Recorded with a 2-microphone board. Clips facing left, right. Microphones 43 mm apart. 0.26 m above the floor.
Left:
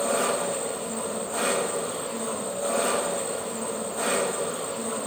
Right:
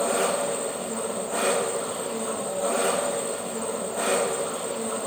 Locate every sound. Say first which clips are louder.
0.0 s an engine running: right 1 dB; 40° right (ahead or behind), 4 m